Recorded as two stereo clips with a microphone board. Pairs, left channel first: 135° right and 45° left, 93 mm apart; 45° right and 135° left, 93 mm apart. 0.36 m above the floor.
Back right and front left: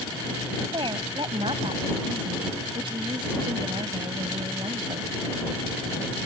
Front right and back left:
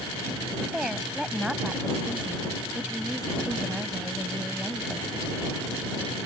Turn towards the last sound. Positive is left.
turn(degrees=55)